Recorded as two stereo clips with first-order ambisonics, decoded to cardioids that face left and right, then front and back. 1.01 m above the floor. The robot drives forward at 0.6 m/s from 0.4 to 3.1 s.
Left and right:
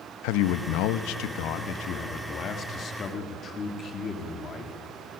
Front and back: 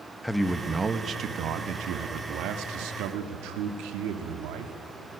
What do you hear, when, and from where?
0.2 s a man speaking: 85° left, 0.8 m; by 4.7 s 150° left, 1.8 m